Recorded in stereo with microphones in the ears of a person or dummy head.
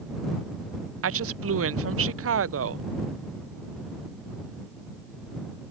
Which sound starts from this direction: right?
A woman speaking, at 1.0 s.